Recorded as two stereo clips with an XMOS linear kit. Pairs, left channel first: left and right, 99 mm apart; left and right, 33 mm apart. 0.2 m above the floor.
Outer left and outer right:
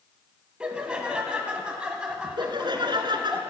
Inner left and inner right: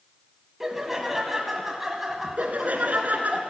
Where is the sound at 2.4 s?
50° right (ahead or behind), 2 m.